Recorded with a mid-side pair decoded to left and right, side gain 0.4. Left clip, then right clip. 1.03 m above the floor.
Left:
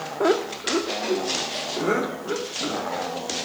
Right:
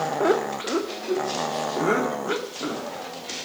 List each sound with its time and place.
0.2 s laughter: 10° left, 0.5 m; by 3.0 s 30° right, 3.5 m